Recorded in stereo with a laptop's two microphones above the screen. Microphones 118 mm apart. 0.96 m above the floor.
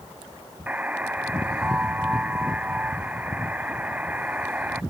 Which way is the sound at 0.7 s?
15° right (ahead or behind).